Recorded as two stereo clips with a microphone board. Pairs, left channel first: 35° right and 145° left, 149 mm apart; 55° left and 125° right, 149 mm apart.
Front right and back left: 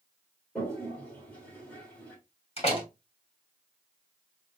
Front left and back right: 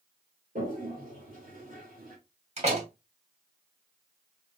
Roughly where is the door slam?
Right.